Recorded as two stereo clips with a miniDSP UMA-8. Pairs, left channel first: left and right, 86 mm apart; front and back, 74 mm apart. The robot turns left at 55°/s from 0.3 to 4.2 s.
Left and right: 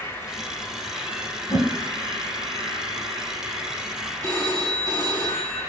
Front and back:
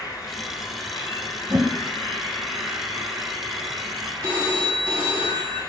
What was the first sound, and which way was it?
An insect, 35° left.